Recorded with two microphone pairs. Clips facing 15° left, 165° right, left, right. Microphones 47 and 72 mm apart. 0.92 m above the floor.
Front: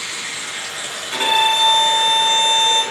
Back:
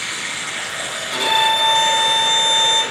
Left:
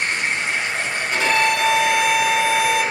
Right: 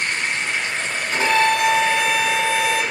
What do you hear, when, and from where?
0.0 s running water: 165° left, 1.0 m
1.1 s a violin: 40° right, 1.8 m